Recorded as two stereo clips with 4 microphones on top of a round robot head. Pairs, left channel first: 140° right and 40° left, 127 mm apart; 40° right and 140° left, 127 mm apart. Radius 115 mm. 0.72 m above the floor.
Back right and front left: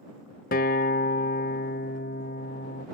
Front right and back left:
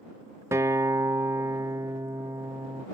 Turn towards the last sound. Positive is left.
turn(degrees=-150)